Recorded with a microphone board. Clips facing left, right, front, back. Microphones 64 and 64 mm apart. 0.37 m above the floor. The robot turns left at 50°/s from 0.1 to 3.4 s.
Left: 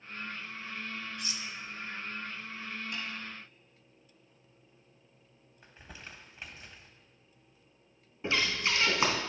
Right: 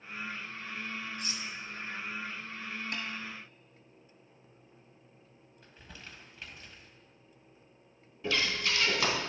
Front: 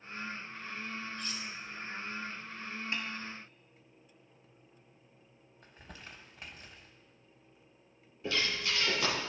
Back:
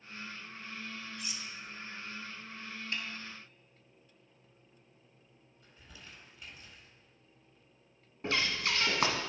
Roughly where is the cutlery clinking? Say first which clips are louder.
Right 1 dB, front 3 dB; right.